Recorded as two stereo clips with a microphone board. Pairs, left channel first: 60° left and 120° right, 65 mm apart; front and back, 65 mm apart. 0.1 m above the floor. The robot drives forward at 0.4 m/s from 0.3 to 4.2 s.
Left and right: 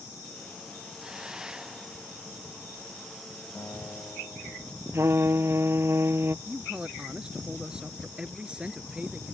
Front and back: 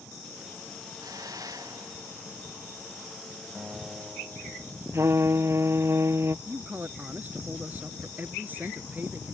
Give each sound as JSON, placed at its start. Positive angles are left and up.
{"t": 1.0, "sound": "a hiss", "azimuth_deg": 160}
{"t": 3.5, "sound": "a guitar", "azimuth_deg": 100}
{"t": 4.9, "sound": "a trumpet", "azimuth_deg": -155}
{"t": 6.5, "sound": "a man speaking", "azimuth_deg": 180}